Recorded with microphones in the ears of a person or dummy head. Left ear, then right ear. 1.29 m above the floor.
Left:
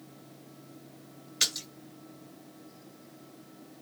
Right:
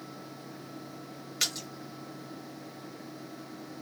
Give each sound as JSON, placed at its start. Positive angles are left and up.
{"t": 1.4, "sound": "a splash", "side_deg": -5, "distance_m": 1.2}